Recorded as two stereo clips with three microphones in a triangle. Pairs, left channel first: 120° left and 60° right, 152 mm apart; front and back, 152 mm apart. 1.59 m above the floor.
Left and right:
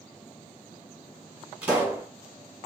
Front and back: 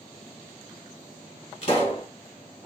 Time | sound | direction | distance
1.6 | a pop | 20° left | 1.8 m